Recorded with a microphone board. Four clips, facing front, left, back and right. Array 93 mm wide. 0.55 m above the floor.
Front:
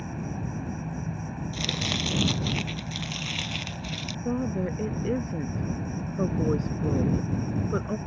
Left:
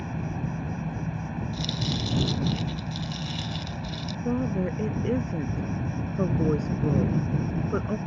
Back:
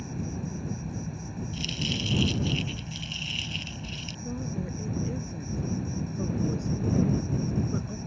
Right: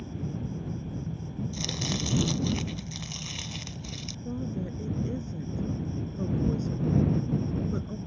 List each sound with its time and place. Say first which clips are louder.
0.0 s an insect: left 4 dB, front 1 dB; 60° left
1.5 s chopping: left 2 dB, front 2 dB; 10° right
4.2 s a woman speaking: left 7 dB, front 7 dB; 50° left